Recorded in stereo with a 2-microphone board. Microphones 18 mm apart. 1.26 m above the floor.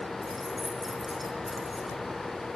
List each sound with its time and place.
0.2 s keys jangling: 10° right (ahead or behind), 2.5 m